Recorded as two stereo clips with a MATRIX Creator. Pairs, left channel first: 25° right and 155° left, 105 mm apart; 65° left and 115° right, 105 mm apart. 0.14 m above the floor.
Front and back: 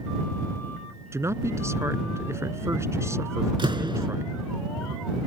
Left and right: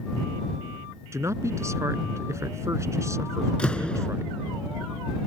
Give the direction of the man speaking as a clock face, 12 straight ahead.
5 o'clock.